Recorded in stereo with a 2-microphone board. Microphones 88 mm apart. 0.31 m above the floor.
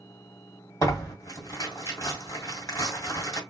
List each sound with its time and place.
0.8 s tearing paper: 40° left (ahead or behind), 1.5 m